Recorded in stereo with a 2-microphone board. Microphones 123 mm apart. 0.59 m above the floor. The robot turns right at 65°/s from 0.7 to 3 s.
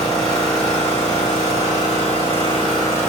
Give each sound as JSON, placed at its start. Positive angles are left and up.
{"t": 0.0, "sound": "an engine running", "azimuth_deg": 10, "distance_m": 1.9}